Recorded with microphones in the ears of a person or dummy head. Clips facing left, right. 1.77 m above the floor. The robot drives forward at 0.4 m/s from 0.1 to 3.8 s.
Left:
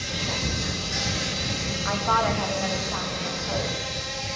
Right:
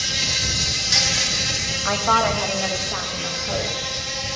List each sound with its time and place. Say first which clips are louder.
0.0 s an insect: left 2 dB; 60° right (ahead or behind), 0.8 m; by 4.4 s 35° right (ahead or behind), 1.3 m
1.9 s a woman speaking: right 4 dB; 60° right (ahead or behind), 0.6 m; by 3.7 s 25° right (ahead or behind), 1.1 m